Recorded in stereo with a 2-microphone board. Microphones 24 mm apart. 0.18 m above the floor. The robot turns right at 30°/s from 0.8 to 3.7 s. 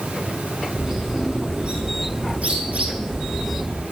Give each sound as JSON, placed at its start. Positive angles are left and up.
{"t": 0.7, "sound": "a bird", "side_deg": -15, "distance_m": 4.0}